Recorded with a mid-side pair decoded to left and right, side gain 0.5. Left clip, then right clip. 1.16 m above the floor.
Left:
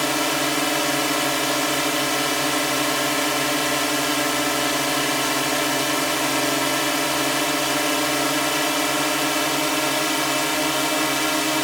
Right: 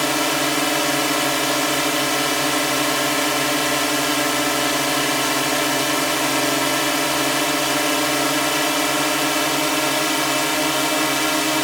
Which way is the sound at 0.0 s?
15° right.